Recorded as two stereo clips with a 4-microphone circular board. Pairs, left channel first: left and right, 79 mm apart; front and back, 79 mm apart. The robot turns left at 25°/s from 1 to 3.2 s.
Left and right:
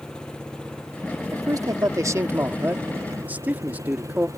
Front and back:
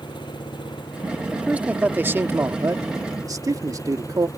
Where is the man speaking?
105° right; by 4.3 s 155° right.